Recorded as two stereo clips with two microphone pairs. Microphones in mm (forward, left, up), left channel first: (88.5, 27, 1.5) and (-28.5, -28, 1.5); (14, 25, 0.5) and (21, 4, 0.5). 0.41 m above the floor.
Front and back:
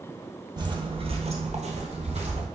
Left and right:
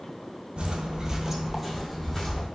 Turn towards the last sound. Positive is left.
turn(degrees=170)